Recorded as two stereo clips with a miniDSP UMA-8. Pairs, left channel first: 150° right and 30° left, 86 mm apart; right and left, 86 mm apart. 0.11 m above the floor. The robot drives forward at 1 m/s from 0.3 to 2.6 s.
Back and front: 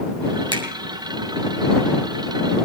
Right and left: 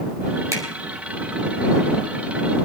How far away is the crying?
I don't hear crying.